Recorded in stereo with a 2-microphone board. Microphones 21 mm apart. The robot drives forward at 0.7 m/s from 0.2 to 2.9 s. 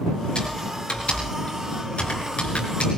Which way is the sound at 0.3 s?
50° left (ahead or behind).